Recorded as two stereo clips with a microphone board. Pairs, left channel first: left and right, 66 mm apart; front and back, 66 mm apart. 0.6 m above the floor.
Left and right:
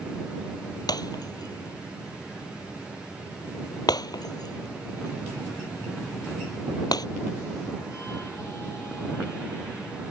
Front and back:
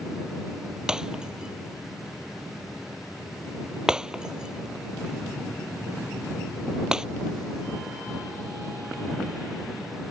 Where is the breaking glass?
100° left.